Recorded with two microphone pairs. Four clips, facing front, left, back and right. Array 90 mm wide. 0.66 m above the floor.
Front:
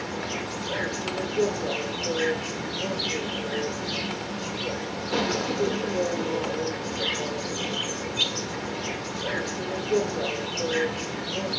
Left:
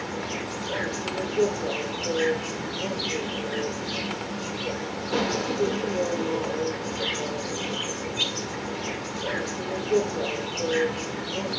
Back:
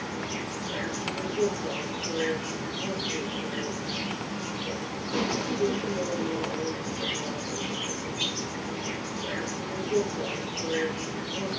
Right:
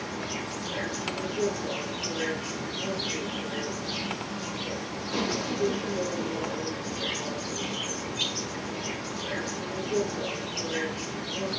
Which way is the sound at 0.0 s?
60° left.